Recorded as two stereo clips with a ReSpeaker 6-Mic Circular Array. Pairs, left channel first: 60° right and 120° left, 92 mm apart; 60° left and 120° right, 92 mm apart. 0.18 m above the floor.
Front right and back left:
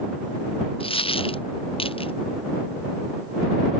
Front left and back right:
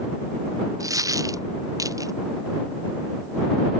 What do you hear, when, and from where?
0.8 s a dropped coin: 65° right